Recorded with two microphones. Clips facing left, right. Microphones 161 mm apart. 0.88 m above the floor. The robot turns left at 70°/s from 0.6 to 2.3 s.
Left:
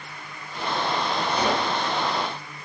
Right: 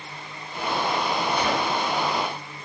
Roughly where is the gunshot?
Left.